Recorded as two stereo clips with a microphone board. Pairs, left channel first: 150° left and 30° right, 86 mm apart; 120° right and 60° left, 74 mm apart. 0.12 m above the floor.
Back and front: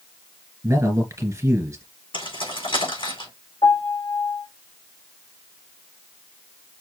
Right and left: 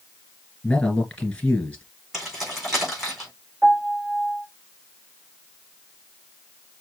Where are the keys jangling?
145° left, 4.5 m.